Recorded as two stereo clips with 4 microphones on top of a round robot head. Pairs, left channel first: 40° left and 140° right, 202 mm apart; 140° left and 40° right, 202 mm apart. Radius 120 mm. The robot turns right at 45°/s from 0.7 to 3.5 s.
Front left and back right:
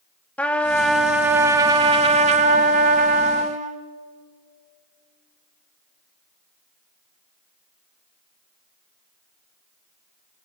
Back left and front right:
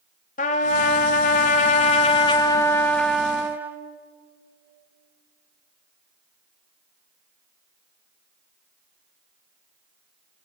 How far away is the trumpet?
About 0.8 m.